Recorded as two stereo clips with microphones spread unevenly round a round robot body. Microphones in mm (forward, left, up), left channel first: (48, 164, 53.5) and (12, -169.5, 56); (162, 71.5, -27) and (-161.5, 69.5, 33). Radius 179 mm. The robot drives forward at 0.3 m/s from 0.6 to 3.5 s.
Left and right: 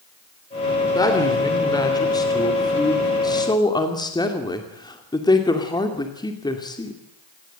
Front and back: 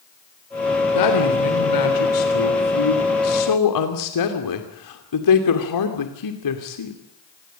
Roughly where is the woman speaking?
Ahead.